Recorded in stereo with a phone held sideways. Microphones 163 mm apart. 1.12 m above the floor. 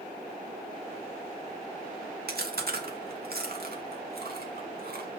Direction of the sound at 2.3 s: 75° right (ahead or behind).